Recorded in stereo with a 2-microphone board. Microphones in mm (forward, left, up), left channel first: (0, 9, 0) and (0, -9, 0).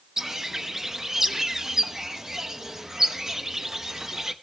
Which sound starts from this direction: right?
A bird, at 0.2 s.